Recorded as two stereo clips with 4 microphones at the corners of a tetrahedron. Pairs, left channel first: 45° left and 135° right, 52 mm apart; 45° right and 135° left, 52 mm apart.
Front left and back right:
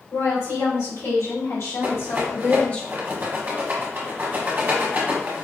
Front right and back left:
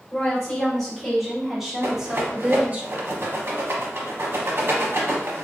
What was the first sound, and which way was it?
A woman speaking, 40° left.